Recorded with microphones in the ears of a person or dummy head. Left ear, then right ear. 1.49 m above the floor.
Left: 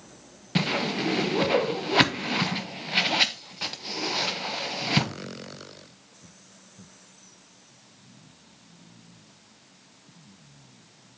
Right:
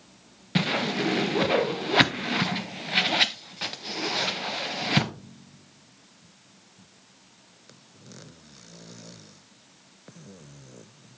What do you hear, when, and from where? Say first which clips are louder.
0.6 s a whoosh: right 1 dB; 5° right (ahead or behind), 0.6 m